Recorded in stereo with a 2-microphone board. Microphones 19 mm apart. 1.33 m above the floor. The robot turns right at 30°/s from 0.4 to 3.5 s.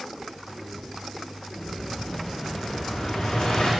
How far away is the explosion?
About 1.2 m.